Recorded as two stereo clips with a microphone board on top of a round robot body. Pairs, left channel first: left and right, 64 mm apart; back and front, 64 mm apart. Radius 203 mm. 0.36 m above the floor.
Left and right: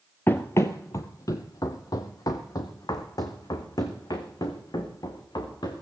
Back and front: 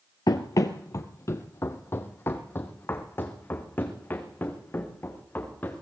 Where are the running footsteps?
150° left, 0.6 m; by 5.8 s 115° left, 3.5 m.